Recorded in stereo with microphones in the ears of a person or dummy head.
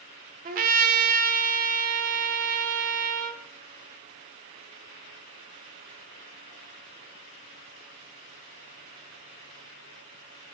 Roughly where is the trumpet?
Right.